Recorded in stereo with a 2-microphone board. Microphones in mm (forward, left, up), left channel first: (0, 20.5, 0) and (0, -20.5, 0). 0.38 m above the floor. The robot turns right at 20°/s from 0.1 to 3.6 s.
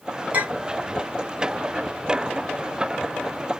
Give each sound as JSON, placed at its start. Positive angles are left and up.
{"t": 0.3, "sound": "a clink", "side_deg": -35, "distance_m": 1.8}